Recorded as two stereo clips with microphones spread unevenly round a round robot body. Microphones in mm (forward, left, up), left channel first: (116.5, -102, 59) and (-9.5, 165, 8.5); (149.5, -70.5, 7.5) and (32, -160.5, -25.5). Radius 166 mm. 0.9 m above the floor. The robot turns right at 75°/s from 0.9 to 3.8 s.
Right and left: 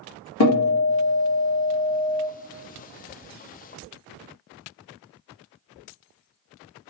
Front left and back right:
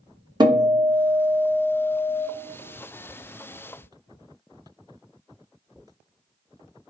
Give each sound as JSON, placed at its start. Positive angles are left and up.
{"t": 0.4, "sound": "a guitar", "azimuth_deg": -85, "distance_m": 1.4}